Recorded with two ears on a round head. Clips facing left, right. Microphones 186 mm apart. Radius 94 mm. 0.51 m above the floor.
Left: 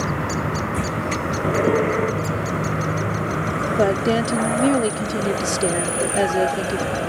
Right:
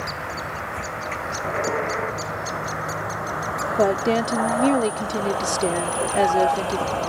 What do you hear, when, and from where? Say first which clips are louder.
0.0 s a vehicle: left 8 dB; 55° left (ahead or behind); by 7.1 s 20° left (ahead or behind)
3.8 s a woman speaking: left 1 dB; 10° left (ahead or behind)